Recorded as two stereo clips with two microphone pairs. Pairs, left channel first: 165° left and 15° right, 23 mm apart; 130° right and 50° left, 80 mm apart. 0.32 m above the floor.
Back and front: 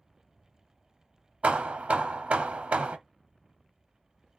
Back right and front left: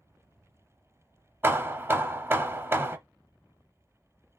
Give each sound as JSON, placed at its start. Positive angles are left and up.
{"t": 1.4, "sound": "hammering", "azimuth_deg": -10, "distance_m": 0.7}